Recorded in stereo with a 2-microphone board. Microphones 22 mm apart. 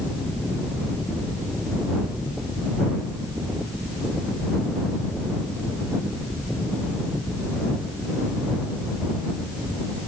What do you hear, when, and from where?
Only background noise.